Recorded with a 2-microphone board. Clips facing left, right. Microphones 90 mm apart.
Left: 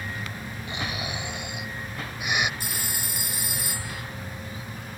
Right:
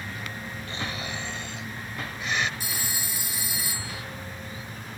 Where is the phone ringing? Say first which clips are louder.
Even; 55° left (ahead or behind).